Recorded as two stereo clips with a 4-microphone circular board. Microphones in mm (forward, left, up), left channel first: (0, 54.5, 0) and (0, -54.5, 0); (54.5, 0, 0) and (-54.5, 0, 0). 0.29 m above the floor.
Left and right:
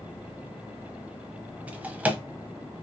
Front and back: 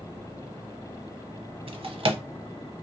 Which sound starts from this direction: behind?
A drawer, at 1.7 s.